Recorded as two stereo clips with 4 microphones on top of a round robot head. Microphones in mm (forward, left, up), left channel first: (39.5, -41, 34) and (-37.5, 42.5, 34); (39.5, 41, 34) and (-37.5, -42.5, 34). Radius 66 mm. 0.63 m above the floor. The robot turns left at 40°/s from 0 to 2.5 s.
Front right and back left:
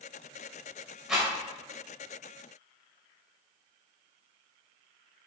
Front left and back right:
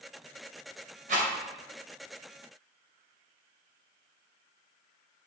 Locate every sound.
1.1 s a rattle: 140° right, 2.5 m; by 1.3 s 150° right, 2.5 m